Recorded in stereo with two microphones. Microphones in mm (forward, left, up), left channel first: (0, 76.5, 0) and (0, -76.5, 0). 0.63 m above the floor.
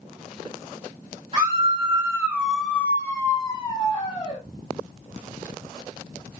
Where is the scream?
35° right (ahead or behind), 0.9 m; by 4.4 s 30° left (ahead or behind), 1.6 m.